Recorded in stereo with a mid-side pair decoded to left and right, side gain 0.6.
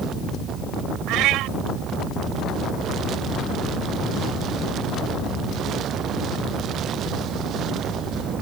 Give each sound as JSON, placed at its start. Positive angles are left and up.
{"t": 1.1, "sound": "a cat meowing", "azimuth_deg": -70}